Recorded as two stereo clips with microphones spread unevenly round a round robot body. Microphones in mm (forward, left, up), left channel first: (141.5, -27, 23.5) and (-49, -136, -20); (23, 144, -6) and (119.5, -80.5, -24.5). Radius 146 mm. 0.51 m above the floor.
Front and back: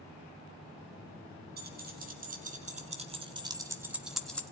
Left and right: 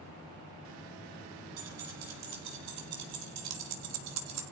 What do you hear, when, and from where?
1.6 s keys jangling: 110° right, 3.5 m; by 4.4 s 55° right, 2.0 m